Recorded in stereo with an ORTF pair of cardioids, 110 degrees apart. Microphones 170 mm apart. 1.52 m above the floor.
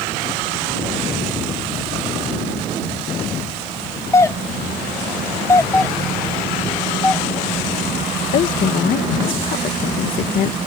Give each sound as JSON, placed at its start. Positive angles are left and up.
{"t": 4.1, "sound": "a doorbell", "azimuth_deg": 20}
{"t": 5.7, "sound": "a doorbell", "azimuth_deg": 10}
{"t": 8.3, "sound": "a woman speaking", "azimuth_deg": 55}